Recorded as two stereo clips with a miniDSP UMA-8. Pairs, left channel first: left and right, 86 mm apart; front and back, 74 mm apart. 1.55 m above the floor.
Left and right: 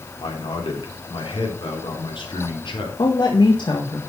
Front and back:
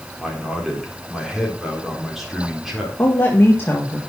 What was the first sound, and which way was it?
A man speaking, 95° left.